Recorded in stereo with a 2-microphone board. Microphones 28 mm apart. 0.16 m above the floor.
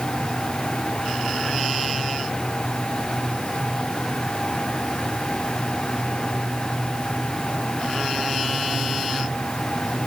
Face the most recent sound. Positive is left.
No sound to turn to.